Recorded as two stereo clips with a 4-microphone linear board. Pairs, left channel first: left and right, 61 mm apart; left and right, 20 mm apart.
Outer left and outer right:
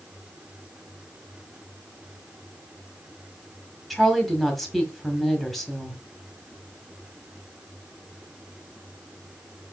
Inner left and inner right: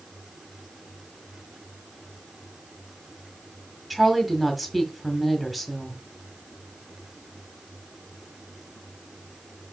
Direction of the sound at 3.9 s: 5° left (ahead or behind).